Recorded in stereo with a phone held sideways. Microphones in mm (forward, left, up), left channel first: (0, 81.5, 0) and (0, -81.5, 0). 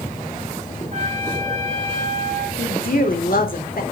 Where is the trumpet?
45° right (ahead or behind), 2.5 m.